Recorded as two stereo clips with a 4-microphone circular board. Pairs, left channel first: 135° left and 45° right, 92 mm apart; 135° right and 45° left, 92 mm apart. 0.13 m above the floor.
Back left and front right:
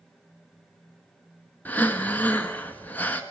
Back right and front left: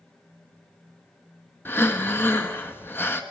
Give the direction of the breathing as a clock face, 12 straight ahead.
6 o'clock.